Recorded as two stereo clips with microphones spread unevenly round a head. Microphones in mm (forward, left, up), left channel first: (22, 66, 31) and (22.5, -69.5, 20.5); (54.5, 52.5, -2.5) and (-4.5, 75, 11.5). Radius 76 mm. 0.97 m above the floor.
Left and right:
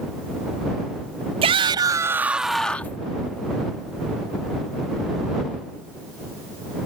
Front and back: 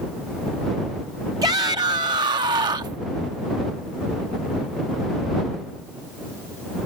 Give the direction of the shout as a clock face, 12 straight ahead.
5 o'clock.